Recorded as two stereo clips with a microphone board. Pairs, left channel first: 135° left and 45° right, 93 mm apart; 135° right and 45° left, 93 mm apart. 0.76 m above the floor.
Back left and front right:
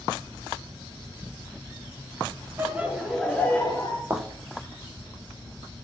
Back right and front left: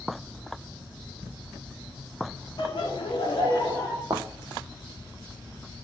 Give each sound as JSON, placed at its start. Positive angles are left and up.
{"t": 2.6, "sound": "laughter", "azimuth_deg": -110, "distance_m": 2.0}
{"t": 4.1, "sound": "a thud", "azimuth_deg": 10, "distance_m": 1.2}